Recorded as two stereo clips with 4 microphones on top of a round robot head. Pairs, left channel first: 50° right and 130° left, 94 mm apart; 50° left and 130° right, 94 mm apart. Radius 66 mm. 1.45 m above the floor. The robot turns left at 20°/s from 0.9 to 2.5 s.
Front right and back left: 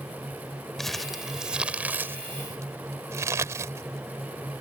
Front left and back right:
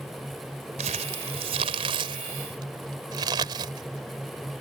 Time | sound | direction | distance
0.8 | crumpling | 140° right | ?